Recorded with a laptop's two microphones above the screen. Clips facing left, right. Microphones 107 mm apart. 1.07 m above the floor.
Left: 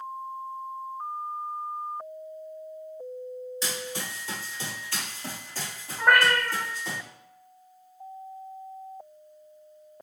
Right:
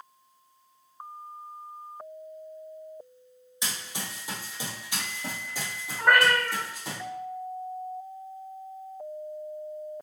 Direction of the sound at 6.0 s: 15° left (ahead or behind).